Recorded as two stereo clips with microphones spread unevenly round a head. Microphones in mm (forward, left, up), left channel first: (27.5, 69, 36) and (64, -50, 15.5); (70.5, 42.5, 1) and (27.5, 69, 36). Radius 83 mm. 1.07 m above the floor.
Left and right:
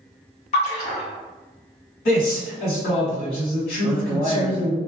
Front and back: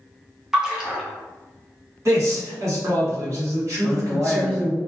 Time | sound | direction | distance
0.5 | a splash | 90° left | 0.8 m
2.0 | a man speaking | 115° left | 1.6 m
3.8 | a man speaking | 50° left | 1.3 m